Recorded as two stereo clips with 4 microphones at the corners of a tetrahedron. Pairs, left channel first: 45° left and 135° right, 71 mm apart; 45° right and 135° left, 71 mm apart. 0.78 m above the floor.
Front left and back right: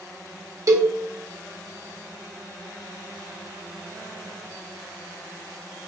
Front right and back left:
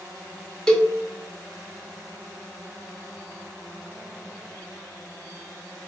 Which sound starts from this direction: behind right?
A cowbell, at 0.7 s.